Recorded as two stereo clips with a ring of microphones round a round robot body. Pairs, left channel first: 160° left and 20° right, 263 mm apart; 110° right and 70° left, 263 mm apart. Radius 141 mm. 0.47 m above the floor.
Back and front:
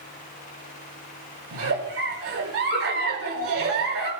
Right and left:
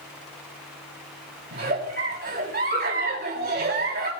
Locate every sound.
1.5 s a giggle: 15° left, 4 m